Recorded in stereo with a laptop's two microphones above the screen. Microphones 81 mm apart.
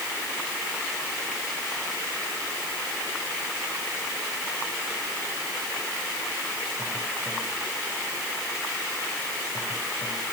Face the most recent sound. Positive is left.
No sound to turn to.